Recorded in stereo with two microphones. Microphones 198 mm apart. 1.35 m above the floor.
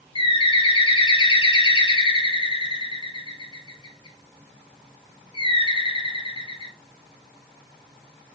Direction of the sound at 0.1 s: 25° left (ahead or behind).